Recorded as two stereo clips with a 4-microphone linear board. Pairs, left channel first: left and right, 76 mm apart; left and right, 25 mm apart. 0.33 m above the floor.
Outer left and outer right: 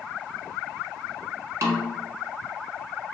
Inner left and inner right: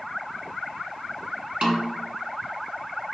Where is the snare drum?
45° right (ahead or behind), 0.9 m.